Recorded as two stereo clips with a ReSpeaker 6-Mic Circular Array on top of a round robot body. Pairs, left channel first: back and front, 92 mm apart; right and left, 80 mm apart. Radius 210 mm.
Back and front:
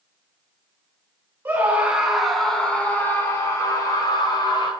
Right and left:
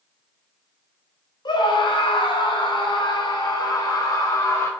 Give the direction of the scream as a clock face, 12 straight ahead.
2 o'clock.